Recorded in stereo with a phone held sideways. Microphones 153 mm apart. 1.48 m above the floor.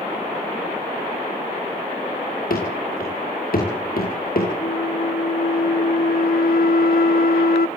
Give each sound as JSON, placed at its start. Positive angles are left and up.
{"t": 2.5, "sound": "running footsteps", "side_deg": 70, "distance_m": 8.0}
{"t": 4.6, "sound": "a flute", "side_deg": 80, "distance_m": 0.8}